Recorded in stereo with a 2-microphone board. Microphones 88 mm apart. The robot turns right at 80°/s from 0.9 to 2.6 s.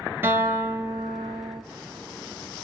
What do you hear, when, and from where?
0.2 s a guitar: 155° right, 1.6 m; by 1.6 s 95° right, 1.6 m